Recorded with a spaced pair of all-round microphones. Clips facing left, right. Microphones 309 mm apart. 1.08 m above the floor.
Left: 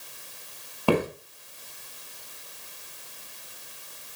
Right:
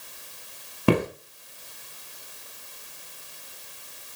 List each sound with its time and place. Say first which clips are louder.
0.9 s footsteps: right 2 dB; 25° right (ahead or behind), 1.1 m